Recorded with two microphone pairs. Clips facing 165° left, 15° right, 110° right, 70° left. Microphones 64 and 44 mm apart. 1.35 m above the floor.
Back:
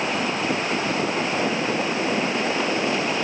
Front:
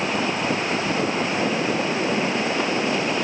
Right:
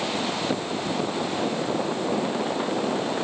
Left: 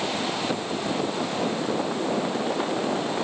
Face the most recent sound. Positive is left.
No sound to turn to.